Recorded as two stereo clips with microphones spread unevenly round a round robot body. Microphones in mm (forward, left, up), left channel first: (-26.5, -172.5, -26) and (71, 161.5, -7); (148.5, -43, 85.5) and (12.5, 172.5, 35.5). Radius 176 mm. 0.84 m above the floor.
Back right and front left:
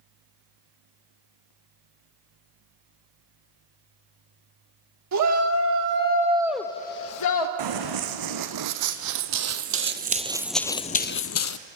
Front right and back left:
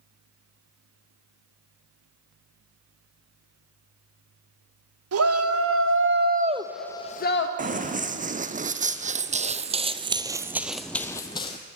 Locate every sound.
5.1 s a shout: 120° left, 2 m; by 7.5 s 105° right, 1.1 m
7.6 s running footsteps: 60° left, 2.5 m; by 11.6 s 110° right, 1.1 m